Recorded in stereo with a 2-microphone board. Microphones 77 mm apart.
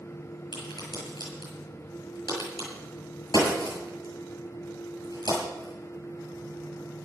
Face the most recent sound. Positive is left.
turn(degrees=70)  # may be behind; listen again after turning